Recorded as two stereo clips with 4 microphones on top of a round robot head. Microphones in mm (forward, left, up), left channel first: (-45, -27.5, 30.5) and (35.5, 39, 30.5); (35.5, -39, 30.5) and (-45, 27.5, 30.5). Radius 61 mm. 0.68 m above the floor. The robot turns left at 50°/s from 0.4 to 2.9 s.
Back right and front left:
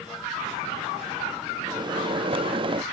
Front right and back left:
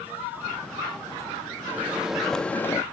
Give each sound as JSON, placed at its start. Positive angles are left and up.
{"t": 1.7, "sound": "a microwave", "azimuth_deg": 80}